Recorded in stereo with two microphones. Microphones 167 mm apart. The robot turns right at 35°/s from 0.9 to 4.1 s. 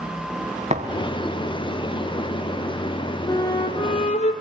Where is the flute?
15° left (ahead or behind), 3.5 m; by 4.3 s 40° left (ahead or behind), 3.5 m.